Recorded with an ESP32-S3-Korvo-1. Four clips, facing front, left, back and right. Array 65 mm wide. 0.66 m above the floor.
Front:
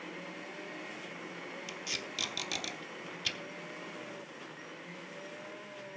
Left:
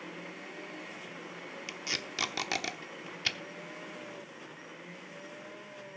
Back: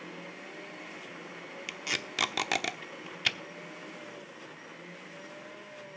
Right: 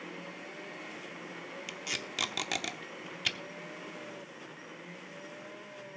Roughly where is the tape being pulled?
Behind.